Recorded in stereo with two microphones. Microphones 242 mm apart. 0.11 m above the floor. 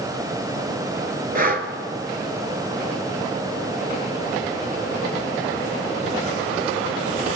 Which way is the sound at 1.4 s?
40° right (ahead or behind).